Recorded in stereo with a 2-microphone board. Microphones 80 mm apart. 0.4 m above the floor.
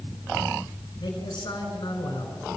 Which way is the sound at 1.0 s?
65° left (ahead or behind).